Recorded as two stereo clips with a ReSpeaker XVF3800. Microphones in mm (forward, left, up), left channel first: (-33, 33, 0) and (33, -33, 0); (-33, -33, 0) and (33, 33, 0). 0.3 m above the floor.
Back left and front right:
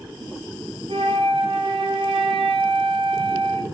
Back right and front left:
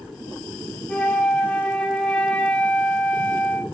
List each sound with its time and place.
0.9 s a flute: 55° right, 1.5 m